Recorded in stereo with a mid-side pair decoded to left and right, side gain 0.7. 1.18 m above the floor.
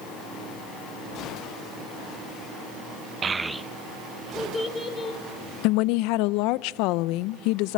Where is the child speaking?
30° right, 0.8 m; by 5.2 s 20° left, 3.5 m.